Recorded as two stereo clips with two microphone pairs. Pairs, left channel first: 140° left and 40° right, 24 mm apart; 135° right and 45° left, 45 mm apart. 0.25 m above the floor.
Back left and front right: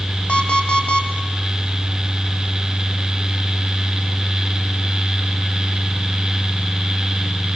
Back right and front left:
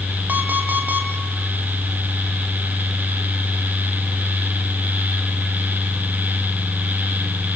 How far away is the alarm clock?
About 4.5 m.